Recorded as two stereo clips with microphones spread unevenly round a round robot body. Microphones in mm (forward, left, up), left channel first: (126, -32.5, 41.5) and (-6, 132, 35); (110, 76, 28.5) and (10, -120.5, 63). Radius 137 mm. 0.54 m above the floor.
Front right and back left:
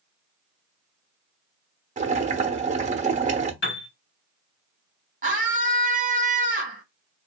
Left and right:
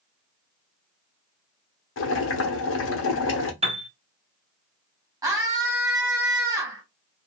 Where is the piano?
50° right, 1.6 m.